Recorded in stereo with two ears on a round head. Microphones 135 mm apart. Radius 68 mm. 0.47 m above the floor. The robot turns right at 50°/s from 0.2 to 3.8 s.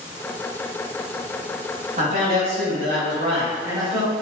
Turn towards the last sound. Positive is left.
turn(degrees=-25)